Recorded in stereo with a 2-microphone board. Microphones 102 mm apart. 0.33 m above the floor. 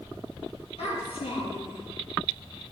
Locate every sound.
0.8 s a child speaking: 70° left (ahead or behind), 7.5 m